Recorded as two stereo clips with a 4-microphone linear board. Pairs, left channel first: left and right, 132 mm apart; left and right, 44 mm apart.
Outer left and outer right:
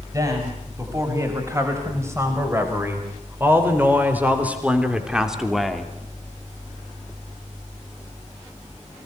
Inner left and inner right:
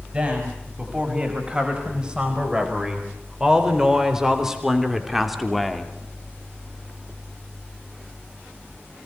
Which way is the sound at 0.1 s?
25° right (ahead or behind).